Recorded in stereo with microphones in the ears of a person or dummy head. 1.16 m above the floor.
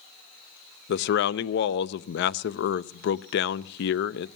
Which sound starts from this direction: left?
A man speaking, at 0.9 s.